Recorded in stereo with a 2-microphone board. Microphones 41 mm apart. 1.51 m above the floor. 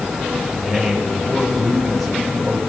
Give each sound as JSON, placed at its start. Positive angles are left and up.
{"t": 0.5, "sound": "a man speaking", "side_deg": -10, "distance_m": 7.0}